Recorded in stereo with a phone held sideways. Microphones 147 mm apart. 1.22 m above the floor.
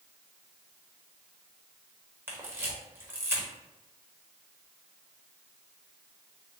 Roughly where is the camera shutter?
Centre.